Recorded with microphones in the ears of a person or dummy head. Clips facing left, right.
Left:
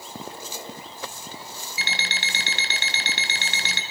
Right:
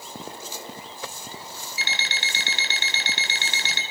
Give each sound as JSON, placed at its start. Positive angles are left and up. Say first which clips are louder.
{"t": 1.8, "sound": "an alarm clock", "louder": "left 1 dB", "side_deg": 65, "distance_m": 4.5}